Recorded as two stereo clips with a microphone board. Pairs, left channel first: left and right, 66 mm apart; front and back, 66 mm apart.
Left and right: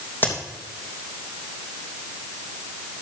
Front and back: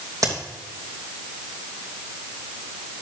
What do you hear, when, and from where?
0.2 s a crack: 150° left, 3 m